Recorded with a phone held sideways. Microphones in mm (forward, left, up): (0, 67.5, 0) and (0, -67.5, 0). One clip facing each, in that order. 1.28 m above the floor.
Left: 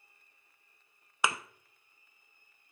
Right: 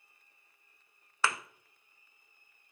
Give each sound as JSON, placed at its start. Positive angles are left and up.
{"t": 1.2, "sound": "a thud", "side_deg": 15, "distance_m": 0.5}